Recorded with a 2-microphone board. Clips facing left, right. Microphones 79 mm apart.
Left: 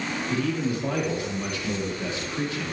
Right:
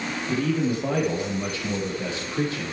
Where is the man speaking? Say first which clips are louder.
Right 3 dB; 40° right (ahead or behind), 6 m; by 2.7 s 35° right (ahead or behind), 7.5 m.